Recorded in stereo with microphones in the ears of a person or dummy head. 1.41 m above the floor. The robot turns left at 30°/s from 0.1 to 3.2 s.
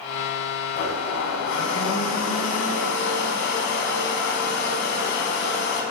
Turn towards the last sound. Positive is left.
turn(degrees=70)